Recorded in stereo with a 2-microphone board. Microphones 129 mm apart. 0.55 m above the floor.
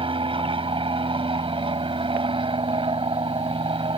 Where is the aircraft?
40° right (ahead or behind).